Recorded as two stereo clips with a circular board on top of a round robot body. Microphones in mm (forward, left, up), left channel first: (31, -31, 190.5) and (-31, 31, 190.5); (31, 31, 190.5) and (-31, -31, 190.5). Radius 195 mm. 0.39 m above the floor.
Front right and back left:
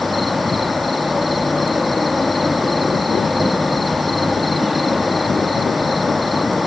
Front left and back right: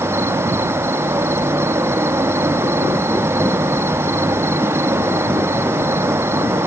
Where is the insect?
135° right.